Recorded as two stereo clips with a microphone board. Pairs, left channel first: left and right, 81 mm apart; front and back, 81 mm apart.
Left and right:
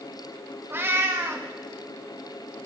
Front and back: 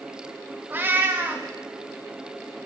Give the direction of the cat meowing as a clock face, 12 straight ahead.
4 o'clock.